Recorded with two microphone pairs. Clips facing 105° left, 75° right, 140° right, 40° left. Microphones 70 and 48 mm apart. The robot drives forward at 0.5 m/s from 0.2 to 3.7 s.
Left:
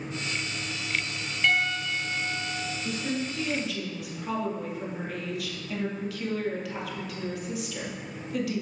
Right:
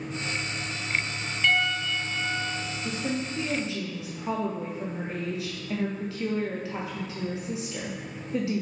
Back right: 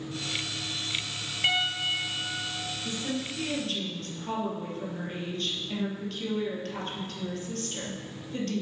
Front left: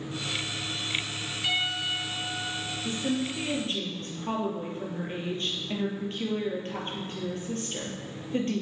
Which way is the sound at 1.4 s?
170° right.